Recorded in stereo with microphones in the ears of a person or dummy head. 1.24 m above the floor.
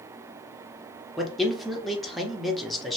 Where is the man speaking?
Centre (ahead or behind), 0.7 m.